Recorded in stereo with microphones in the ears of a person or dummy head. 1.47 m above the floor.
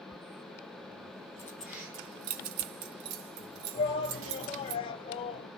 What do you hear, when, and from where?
1.4 s keys jangling: 10° left (ahead or behind), 0.7 m; by 4.8 s 70° right (ahead or behind), 2.5 m
3.8 s a shout: 30° left (ahead or behind), 0.7 m